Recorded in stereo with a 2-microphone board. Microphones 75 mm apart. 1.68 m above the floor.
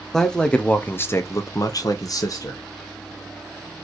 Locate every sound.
0.1 s a man speaking: 5° left (ahead or behind), 0.9 m; by 2.6 s 50° left (ahead or behind), 0.9 m